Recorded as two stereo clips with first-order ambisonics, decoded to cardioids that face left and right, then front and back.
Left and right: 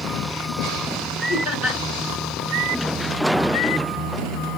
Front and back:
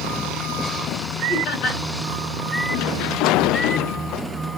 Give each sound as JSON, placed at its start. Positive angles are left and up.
{"t": 1.3, "sound": "laughter", "azimuth_deg": 35, "distance_m": 3.0}